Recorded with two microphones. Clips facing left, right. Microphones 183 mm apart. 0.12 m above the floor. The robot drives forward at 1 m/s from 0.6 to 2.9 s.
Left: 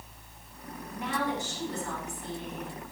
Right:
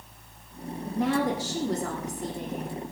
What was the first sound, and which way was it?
A woman speaking, 75° right (ahead or behind).